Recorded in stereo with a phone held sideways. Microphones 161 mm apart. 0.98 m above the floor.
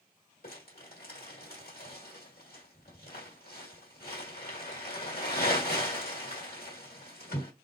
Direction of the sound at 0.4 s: 70° left (ahead or behind).